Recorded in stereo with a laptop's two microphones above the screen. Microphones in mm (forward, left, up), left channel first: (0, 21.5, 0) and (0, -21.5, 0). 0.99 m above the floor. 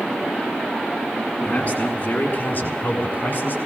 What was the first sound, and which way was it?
A man speaking, 30° left (ahead or behind).